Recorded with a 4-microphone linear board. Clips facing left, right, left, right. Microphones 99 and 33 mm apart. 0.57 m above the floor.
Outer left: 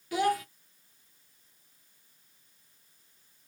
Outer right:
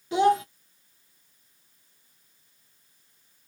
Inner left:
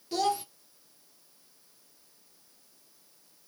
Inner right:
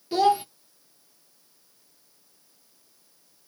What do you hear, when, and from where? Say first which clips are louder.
0.1 s a child speaking: outer right 7 dB, inner right 8 dB; 25° right (ahead or behind), 0.7 m